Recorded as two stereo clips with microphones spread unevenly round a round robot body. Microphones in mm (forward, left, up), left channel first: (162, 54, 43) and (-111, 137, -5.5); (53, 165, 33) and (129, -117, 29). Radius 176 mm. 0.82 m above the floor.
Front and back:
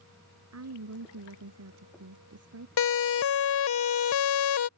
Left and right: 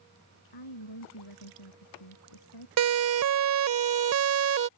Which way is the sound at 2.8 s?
55° right.